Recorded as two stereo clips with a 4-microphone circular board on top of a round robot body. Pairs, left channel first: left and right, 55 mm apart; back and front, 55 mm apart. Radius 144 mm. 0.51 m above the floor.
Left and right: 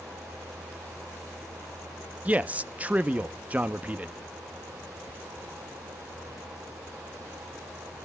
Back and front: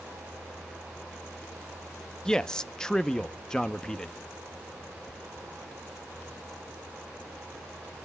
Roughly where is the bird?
No bird in this recording.